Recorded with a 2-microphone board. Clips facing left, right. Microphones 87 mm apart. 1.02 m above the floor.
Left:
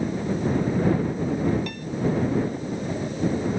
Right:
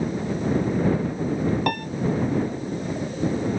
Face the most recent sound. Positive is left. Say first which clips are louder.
# right 10 dB
turn(degrees=-60)  # may be behind; listen again after turning